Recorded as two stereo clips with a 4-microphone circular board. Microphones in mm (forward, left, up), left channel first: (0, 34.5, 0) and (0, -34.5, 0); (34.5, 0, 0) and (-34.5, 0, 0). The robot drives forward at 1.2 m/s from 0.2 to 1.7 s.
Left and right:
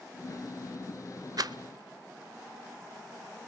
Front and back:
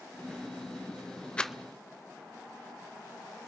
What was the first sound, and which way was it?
A rattle, 75° right.